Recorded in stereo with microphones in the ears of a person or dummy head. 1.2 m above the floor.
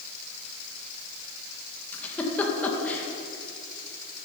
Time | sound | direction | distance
1.9 | a giggle | 10° left (ahead or behind) | 1.6 m